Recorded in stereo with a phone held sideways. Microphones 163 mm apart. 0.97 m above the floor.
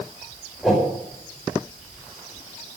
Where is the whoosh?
Centre (ahead or behind), 5 m.